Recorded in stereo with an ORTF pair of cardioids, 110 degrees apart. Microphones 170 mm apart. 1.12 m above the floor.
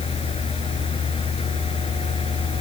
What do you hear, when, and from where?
0.0 s a fan: 35° left